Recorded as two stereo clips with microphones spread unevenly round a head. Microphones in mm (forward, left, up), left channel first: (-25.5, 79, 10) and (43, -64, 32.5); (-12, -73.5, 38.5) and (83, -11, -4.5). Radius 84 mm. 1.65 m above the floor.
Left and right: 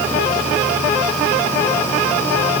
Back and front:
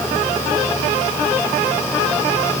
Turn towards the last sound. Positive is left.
No sound to turn to.